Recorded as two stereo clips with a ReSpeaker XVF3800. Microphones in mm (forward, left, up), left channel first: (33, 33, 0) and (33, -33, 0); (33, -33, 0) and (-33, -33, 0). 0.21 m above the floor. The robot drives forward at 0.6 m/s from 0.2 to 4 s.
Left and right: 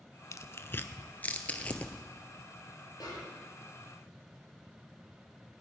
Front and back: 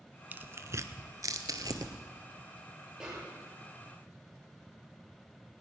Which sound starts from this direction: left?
A snare drum, at 3.0 s.